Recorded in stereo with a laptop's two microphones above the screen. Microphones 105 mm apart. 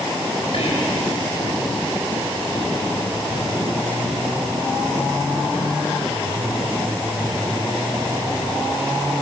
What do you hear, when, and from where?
0.5 s whispering: 70° left (ahead or behind), 4 m